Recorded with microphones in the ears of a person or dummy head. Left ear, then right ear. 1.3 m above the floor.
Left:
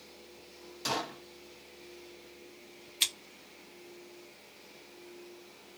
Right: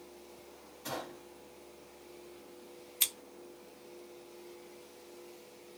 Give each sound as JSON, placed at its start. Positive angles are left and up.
{"t": 0.8, "sound": "a gunshot", "side_deg": 65, "distance_m": 0.9}
{"t": 3.0, "sound": "scissors", "side_deg": 10, "distance_m": 1.1}